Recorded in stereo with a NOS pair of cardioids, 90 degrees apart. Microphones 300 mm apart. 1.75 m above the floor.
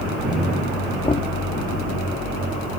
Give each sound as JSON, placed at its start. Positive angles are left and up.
{"t": 1.0, "sound": "knocking", "azimuth_deg": 20}